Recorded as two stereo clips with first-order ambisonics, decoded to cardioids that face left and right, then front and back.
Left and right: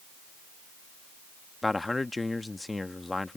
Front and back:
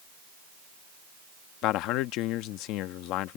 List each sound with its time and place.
1.6 s a man speaking: 10° left